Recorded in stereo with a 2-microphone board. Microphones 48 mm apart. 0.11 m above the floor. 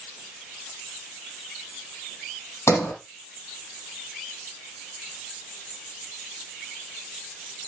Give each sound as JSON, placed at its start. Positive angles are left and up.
{"t": 2.7, "sound": "a sliding door", "side_deg": 65, "distance_m": 4.0}